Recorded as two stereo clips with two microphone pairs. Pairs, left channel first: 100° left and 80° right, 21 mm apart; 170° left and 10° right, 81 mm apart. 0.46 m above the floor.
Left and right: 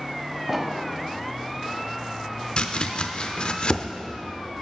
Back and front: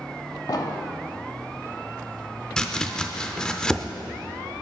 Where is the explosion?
150° right, 0.7 m.